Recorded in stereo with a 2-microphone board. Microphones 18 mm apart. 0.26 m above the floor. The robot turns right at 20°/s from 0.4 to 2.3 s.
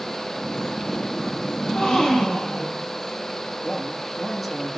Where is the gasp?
60° left (ahead or behind), 6.5 m; by 2.9 s 45° left (ahead or behind), 6.5 m.